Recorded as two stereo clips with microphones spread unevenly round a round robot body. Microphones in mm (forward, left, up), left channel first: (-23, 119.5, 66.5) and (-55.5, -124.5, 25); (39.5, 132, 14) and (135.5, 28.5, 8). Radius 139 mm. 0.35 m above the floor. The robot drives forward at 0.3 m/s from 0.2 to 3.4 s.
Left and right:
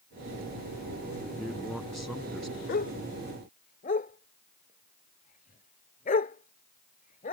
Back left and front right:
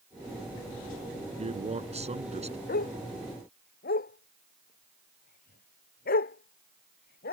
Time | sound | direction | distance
1.4 | a man speaking | 10° right | ?
2.7 | a dog barking | 135° left | ?